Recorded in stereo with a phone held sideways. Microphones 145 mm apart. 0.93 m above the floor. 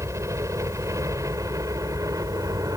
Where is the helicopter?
20° right (ahead or behind).